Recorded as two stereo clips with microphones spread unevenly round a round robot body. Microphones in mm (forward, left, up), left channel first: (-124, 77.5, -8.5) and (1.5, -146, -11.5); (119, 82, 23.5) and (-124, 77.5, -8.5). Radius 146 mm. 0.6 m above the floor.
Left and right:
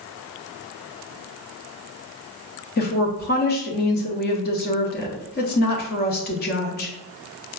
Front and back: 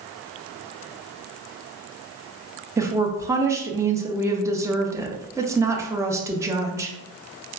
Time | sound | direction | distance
2.8 | a woman speaking | 125° left | 0.6 m